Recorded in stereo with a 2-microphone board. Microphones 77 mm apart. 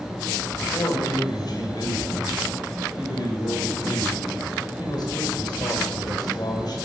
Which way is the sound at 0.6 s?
60° left (ahead or behind).